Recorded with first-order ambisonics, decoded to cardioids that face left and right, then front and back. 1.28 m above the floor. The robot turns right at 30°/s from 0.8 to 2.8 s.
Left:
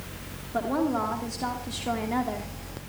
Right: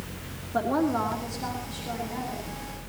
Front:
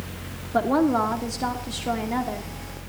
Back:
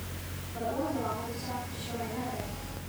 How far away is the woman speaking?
About 2.5 m.